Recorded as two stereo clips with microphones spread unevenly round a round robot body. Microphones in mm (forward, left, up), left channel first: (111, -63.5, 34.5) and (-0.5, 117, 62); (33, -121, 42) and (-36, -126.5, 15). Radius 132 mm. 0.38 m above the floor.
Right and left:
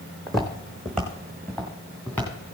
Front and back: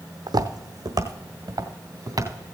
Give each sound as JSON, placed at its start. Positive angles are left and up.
{"t": 0.3, "sound": "footsteps", "azimuth_deg": -150, "distance_m": 1.1}